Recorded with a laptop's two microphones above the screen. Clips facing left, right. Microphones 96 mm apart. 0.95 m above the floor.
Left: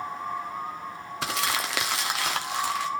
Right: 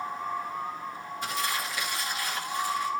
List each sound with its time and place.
1.2 s crumpling: 80° left, 1.7 m